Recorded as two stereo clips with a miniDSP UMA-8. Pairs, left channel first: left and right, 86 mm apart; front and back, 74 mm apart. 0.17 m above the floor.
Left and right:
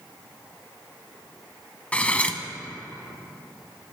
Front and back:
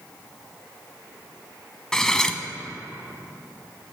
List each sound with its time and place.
1.9 s cutlery clinking: 60° left, 0.8 m